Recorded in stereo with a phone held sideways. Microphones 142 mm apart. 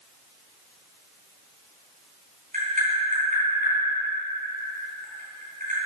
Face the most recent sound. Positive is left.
turn(degrees=-70)  # may be behind; listen again after turning